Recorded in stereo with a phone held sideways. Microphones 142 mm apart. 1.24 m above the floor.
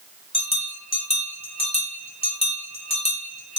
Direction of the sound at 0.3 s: 40° left (ahead or behind).